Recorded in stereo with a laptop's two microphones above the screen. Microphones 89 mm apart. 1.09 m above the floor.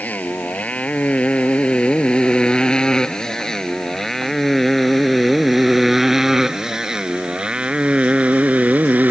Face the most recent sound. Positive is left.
turn(degrees=-20)  # may be behind; listen again after turning